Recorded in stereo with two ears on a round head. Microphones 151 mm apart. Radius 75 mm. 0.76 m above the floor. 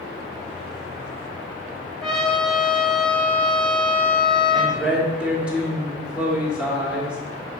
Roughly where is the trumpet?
Centre.